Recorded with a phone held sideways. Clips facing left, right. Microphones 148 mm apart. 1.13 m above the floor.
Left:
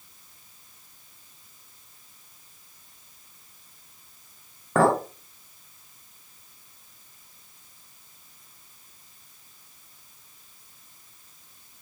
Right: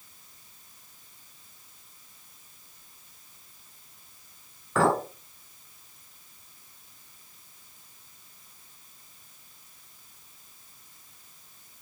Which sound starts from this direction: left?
A clink, at 4.8 s.